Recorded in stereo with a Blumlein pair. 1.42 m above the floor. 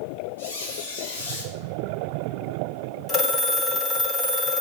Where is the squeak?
65° left, 1.8 m.